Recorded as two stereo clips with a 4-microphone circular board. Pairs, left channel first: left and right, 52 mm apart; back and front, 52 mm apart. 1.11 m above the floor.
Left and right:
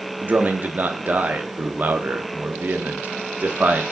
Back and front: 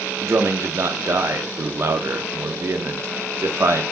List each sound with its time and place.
0.2 s a man speaking: 35° right, 0.6 m